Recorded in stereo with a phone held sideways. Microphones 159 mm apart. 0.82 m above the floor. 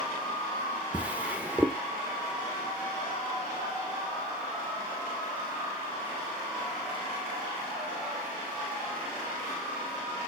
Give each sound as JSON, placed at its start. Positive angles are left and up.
{"t": 0.9, "sound": "a drawer", "side_deg": -10, "distance_m": 0.6}